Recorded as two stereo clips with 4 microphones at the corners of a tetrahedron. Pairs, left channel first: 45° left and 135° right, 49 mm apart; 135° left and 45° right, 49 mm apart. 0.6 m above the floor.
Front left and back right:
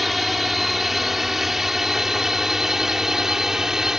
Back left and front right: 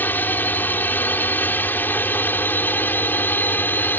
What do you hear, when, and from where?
0.0 s a drone: 135° left; by 4.0 s 150° left